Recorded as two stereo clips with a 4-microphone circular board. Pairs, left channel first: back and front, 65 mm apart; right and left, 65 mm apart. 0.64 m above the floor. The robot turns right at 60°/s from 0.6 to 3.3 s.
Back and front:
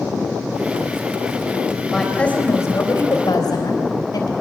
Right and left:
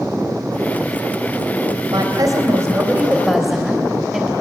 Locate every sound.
1.9 s a woman speaking: 90° left, 3.5 m; by 4.3 s 175° left, 3.5 m